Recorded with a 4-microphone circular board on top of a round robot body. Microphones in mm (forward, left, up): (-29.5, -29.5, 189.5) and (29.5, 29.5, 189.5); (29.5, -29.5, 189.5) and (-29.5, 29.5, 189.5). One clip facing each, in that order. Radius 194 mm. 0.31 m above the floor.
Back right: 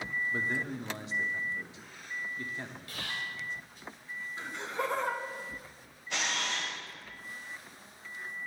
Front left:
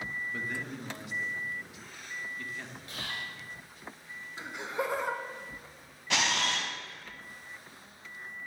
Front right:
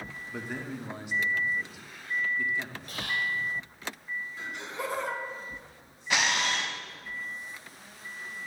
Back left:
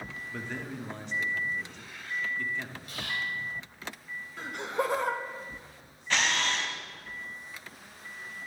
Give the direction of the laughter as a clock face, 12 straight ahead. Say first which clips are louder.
Front left 1 dB, back left 5 dB; 8 o'clock.